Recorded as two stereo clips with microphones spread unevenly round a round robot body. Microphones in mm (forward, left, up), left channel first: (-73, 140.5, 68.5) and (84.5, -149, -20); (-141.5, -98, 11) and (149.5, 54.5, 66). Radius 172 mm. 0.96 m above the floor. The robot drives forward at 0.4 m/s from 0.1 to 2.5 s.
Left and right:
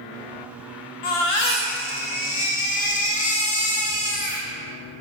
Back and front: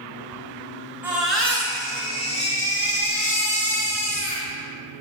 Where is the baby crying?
110° left, 1.0 m; by 4.5 s 135° left, 1.4 m.